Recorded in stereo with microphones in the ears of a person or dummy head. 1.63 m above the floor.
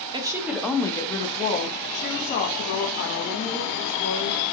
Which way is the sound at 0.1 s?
25° right (ahead or behind).